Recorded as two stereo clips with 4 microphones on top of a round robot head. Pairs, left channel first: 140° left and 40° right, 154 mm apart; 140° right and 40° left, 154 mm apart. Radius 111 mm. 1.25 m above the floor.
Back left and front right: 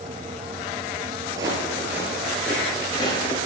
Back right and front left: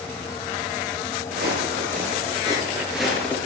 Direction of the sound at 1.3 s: 25° left.